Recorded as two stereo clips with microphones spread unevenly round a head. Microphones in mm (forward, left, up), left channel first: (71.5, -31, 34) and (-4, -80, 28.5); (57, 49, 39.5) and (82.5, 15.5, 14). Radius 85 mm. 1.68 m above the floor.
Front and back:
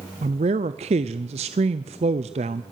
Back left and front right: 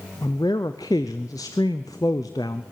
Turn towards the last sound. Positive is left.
turn(degrees=180)